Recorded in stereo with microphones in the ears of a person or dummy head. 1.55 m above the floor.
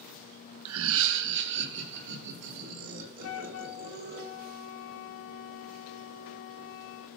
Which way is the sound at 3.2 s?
75° left (ahead or behind).